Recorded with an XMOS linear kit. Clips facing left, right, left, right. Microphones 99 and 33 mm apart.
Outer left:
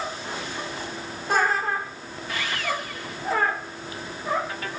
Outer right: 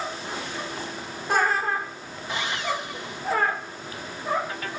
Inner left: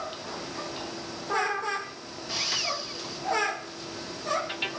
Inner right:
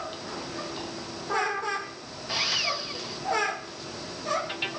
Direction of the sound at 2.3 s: 25° right (ahead or behind).